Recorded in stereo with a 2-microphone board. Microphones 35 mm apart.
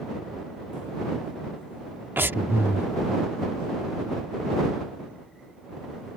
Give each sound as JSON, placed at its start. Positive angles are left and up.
{"t": 2.2, "sound": "breathing", "side_deg": -80}